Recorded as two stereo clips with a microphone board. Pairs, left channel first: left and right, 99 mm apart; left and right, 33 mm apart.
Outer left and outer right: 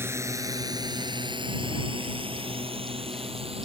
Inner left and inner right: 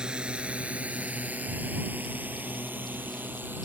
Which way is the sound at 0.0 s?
25° right (ahead or behind).